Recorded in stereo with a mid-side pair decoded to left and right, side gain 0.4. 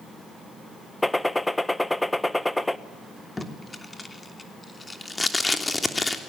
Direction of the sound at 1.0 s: 10° left.